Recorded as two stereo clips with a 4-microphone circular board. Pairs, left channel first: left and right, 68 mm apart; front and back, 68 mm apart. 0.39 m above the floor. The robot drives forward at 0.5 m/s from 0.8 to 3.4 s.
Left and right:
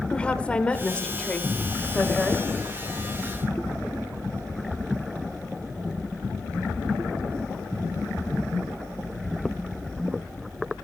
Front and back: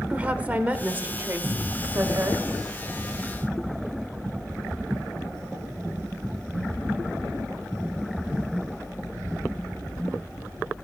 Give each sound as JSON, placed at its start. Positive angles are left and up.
{"t": 0.1, "sound": "a woman speaking", "azimuth_deg": 140, "distance_m": 1.0}